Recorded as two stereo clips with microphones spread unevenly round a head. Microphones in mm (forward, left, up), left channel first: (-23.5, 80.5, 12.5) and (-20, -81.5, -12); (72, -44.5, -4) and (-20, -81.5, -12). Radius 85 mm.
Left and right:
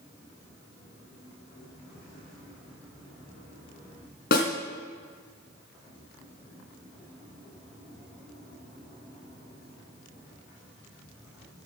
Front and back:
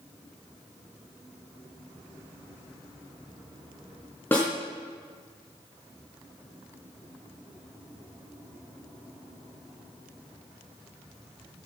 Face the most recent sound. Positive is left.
turn(degrees=95)